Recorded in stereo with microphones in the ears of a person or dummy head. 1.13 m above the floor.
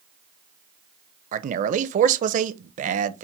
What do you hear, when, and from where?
1.3 s a man speaking: 40° right (ahead or behind), 0.5 m